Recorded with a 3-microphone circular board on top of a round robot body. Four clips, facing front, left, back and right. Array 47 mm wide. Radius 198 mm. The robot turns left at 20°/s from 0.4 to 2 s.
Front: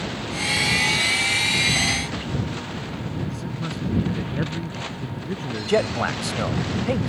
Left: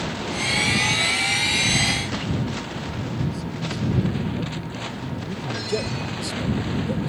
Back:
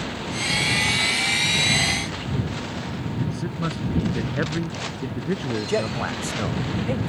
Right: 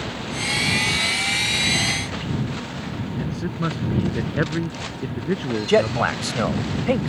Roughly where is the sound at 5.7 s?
Right.